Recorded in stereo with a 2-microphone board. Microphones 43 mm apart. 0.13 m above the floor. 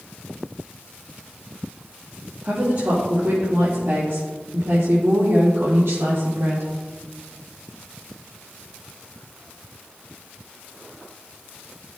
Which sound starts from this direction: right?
A woman speaking, at 2.4 s.